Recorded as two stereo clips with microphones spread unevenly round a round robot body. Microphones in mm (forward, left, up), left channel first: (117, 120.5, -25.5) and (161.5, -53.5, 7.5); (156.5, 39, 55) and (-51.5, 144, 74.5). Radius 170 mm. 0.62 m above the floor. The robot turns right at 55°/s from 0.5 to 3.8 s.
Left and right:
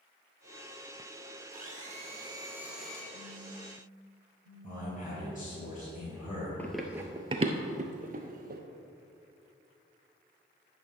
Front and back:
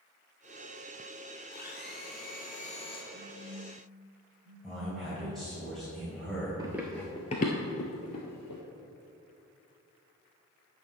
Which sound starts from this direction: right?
A phone buzzing, at 3.1 s.